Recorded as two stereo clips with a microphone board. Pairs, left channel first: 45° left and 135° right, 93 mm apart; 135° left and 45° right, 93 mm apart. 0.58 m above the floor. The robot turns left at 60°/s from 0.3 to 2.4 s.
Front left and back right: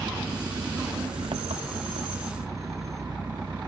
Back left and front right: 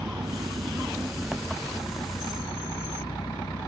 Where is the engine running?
60° right; by 3.7 s 175° left.